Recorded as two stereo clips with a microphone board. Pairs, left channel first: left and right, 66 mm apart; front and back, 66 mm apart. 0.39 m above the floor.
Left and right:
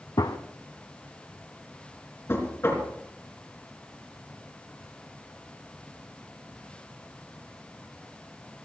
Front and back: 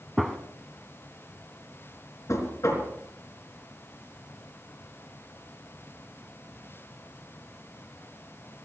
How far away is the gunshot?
About 1.0 m.